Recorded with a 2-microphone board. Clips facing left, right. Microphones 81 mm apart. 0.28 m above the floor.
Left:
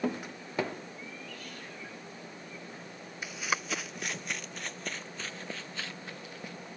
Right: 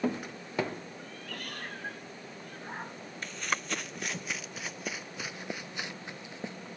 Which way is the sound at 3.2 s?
10° left (ahead or behind).